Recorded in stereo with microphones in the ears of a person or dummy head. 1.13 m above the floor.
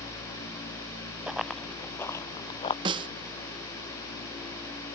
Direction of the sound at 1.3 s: 5° right (ahead or behind).